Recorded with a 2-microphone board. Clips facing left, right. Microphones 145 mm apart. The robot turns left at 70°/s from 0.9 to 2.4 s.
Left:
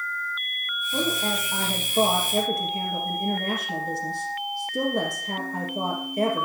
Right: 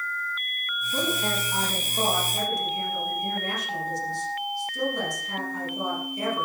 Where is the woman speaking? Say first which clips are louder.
Left 1 dB; 170° left, 3.5 m; by 6.5 s 65° left, 3.5 m.